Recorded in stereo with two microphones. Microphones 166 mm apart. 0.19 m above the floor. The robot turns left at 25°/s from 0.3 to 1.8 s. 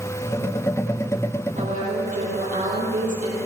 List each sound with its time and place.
1.6 s a woman speaking: 45° right (ahead or behind), 6.5 m; by 3.4 s 55° right (ahead or behind), 6.5 m